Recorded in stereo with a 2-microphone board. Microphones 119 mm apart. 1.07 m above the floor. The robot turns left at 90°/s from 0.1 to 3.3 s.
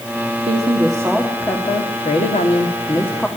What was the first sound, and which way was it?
A woman speaking, 105° right.